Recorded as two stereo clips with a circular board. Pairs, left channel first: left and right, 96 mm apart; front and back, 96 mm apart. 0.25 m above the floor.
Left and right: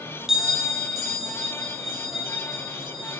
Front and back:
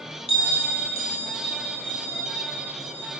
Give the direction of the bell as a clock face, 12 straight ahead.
12 o'clock.